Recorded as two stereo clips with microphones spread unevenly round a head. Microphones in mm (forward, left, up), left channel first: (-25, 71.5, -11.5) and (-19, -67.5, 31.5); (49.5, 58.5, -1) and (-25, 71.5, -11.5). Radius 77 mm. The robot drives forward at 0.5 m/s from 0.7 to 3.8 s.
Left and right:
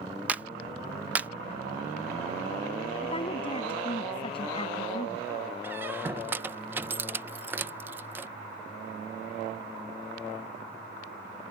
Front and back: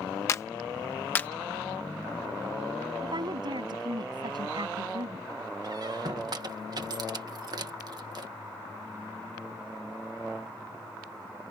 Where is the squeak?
150° right.